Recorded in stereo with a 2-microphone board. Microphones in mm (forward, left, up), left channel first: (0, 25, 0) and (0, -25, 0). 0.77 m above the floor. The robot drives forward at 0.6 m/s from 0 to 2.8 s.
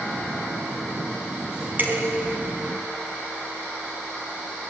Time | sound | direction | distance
1.8 | dishes clattering | 35° right (ahead or behind) | 4.5 m